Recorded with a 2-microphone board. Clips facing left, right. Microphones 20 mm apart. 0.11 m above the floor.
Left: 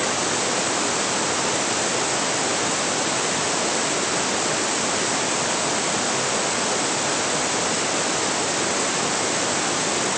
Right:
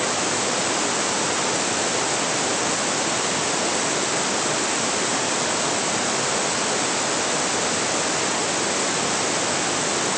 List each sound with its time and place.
Only background noise.